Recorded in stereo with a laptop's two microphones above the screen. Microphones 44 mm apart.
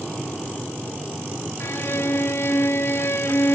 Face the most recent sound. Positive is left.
turn(degrees=65)  # may be behind; listen again after turning